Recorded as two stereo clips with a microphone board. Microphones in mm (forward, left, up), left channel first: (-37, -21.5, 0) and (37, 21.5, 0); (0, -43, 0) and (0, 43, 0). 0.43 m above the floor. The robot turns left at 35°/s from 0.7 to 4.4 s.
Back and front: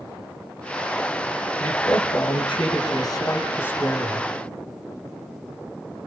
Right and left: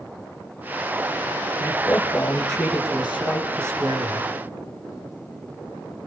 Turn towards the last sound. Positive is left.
turn(degrees=120)